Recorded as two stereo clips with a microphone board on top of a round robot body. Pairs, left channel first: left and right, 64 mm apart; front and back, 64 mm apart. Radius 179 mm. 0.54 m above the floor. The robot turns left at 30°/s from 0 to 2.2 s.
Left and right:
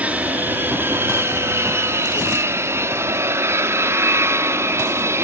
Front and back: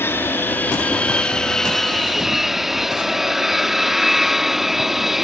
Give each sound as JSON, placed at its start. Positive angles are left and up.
{"t": 0.0, "sound": "an aircraft", "azimuth_deg": -30}